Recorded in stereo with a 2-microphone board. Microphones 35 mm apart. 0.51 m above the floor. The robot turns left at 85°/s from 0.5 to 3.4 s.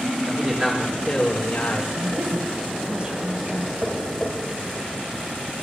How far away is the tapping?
About 6.5 m.